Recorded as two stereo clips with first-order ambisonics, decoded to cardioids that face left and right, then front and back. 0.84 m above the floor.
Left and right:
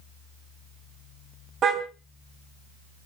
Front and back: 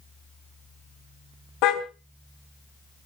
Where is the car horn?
30° right, 2.5 m.